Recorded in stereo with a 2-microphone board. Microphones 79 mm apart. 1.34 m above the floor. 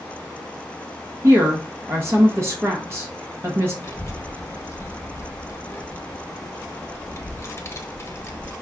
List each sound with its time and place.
1.2 s a woman speaking: 35° right (ahead or behind), 0.9 m
3.8 s a child speaking: 35° left (ahead or behind), 1.0 m